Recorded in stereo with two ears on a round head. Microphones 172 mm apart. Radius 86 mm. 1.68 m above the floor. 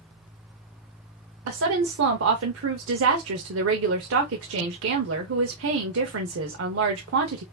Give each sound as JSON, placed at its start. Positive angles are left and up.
{"t": 1.5, "sound": "a woman speaking", "side_deg": -75, "distance_m": 0.7}